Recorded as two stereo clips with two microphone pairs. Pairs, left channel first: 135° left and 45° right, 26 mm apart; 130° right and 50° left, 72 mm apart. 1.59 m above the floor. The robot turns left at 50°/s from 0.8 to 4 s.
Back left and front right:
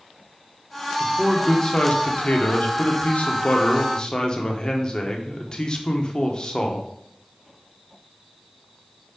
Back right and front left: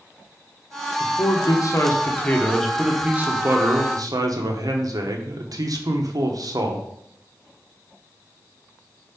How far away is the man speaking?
About 1.0 m.